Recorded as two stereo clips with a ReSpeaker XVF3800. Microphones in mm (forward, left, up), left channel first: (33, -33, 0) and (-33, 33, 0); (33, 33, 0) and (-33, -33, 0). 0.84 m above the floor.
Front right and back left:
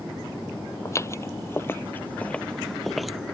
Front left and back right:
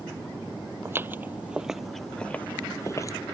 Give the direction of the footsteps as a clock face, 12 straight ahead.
3 o'clock.